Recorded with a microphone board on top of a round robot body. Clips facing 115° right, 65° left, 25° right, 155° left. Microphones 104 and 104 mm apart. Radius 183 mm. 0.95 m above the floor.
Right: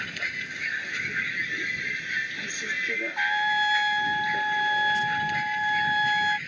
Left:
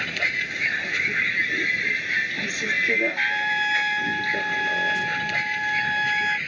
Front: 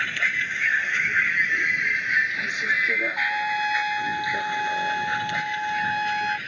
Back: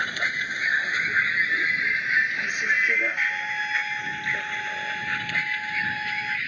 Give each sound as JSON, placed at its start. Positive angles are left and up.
{"t": 0.0, "sound": "a vehicle", "azimuth_deg": 85}
{"t": 3.2, "sound": "a trumpet", "azimuth_deg": -35}